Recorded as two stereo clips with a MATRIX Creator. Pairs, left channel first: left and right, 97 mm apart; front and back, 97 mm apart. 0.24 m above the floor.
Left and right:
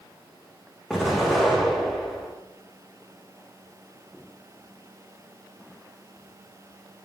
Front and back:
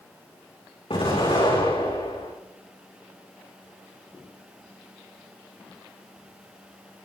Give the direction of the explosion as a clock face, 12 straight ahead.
12 o'clock.